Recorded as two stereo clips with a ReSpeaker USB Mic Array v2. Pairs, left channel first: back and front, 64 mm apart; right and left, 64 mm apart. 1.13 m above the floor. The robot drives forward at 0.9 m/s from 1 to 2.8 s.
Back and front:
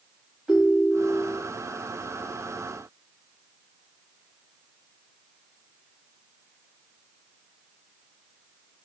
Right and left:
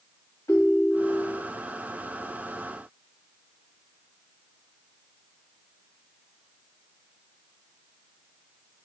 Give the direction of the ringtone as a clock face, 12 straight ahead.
3 o'clock.